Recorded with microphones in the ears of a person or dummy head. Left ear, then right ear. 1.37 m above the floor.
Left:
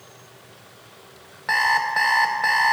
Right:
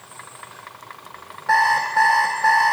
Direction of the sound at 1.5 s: 30° left (ahead or behind).